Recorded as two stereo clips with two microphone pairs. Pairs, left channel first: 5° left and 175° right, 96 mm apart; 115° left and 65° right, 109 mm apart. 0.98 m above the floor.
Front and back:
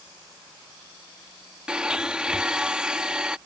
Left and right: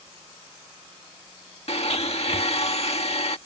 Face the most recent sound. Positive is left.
turn(degrees=100)